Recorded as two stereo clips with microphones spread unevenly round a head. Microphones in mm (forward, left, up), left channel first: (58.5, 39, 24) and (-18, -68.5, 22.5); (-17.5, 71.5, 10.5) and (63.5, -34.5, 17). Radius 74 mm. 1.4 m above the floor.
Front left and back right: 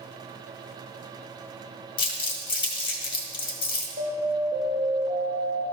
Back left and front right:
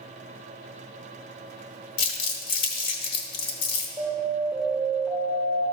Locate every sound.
2.0 s crumpling: 115° left, 1.8 m
4.0 s an alarm: 130° right, 2.5 m